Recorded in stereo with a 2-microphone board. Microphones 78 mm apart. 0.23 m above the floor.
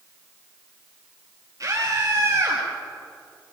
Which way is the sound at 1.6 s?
45° right (ahead or behind).